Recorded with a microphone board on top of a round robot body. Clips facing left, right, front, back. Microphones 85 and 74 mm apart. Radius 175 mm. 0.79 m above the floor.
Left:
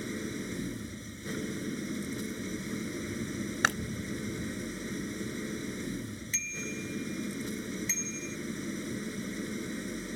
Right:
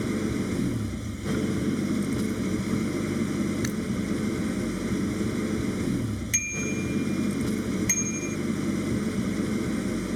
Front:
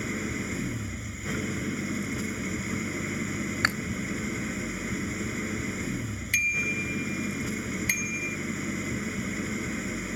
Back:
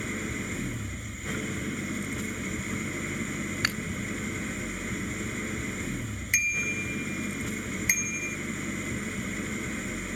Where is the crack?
No crack in this recording.